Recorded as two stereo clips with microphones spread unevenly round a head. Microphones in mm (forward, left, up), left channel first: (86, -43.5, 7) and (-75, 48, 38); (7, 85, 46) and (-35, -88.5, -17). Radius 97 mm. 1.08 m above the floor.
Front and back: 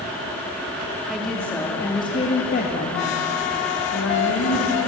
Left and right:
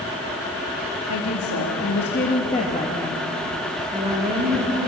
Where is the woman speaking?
60° left, 2.5 m; by 4.9 s 50° right, 3.5 m.